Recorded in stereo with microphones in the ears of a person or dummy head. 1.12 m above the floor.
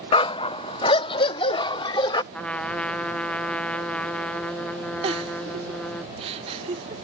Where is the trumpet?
5° left (ahead or behind).